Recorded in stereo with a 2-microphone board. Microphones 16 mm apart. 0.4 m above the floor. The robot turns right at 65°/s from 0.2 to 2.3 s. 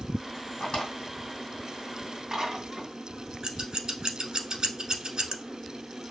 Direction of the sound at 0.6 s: 60° left (ahead or behind).